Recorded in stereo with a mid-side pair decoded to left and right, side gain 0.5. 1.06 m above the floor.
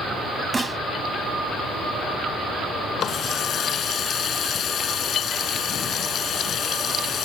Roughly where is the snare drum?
Ahead.